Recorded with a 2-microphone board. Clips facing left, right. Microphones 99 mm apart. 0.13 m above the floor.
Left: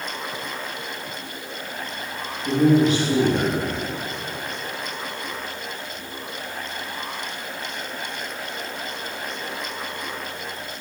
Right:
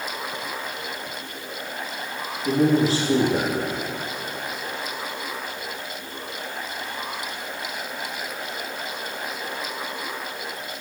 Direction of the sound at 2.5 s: 30° right (ahead or behind).